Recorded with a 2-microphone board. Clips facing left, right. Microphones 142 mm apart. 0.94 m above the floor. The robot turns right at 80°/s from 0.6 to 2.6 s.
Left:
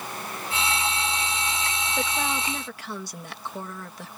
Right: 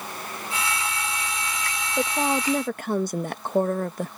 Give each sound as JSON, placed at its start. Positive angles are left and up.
{"t": 2.0, "sound": "a woman speaking", "azimuth_deg": -155}